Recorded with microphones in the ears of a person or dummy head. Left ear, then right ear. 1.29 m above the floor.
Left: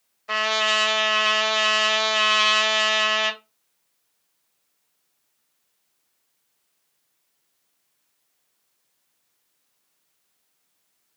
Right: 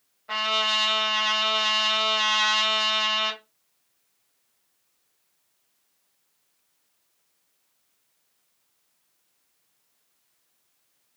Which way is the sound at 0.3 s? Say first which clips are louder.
Left 3 dB; 75° left (ahead or behind).